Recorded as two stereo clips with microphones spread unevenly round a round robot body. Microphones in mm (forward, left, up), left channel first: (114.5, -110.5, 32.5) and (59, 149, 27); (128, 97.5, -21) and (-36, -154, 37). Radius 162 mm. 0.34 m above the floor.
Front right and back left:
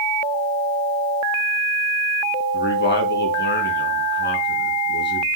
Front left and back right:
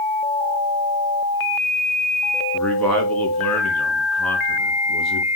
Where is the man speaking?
30° right, 3.5 m.